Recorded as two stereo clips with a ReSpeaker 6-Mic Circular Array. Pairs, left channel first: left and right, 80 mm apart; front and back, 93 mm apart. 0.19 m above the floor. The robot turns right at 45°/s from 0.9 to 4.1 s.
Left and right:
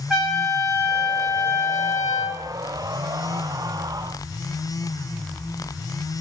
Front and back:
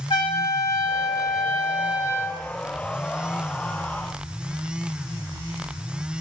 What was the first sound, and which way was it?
A trumpet, 10° right.